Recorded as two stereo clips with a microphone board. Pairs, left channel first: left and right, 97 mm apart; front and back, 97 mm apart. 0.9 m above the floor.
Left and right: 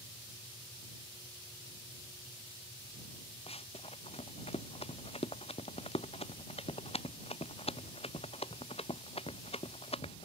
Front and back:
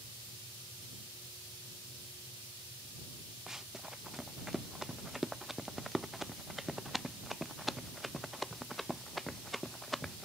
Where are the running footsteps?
95° left; by 10.3 s 90° left.